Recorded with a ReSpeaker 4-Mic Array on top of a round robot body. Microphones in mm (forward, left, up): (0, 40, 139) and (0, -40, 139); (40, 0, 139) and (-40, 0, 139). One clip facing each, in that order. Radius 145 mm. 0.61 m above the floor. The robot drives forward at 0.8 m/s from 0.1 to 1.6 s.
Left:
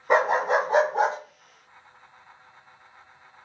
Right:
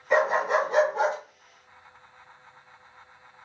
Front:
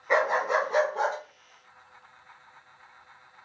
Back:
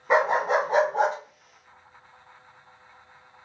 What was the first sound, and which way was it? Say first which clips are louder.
A dog barking: left 2 dB, back 3 dB; 110° left.